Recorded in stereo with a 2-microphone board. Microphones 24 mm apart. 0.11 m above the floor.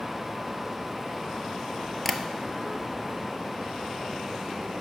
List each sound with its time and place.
2.0 s tapping: 15° left (ahead or behind), 0.5 m